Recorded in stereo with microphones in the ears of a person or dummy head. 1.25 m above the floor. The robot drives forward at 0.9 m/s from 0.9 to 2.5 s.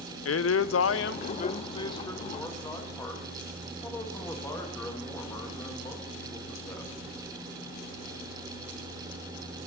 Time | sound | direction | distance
0.2 | a man speaking | 75° left (ahead or behind) | 0.6 m